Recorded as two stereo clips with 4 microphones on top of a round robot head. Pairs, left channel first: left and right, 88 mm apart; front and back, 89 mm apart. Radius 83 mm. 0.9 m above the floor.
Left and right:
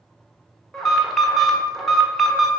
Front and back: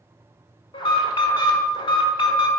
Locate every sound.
0.7 s an alarm: 5° left, 1.3 m